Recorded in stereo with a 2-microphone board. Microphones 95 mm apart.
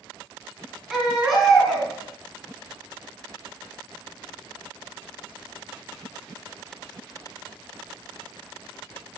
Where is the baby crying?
5° right (ahead or behind), 3 m.